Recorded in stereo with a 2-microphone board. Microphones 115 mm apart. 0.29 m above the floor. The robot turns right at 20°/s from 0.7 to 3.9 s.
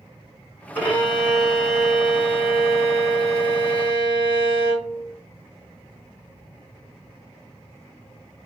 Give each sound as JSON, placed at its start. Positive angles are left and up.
{"t": 0.8, "sound": "a violin", "azimuth_deg": 165, "distance_m": 3.5}